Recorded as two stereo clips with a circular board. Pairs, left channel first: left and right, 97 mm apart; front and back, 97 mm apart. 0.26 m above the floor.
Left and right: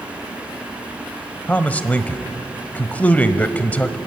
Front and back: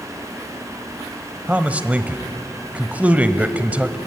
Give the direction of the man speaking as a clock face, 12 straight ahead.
8 o'clock.